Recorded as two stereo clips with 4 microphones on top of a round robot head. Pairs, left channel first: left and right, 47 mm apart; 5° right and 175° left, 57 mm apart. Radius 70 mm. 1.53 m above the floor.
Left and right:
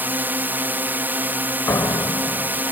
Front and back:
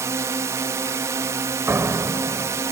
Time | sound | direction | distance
0.0 | a drone | 135° right | ?
1.7 | a door slam | 125° left | ?